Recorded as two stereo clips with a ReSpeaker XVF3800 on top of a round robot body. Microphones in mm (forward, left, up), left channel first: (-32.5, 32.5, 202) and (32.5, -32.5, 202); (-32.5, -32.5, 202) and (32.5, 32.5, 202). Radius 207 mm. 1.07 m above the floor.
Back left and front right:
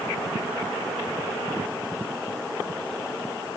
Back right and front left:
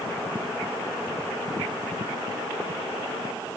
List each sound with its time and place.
Only background noise.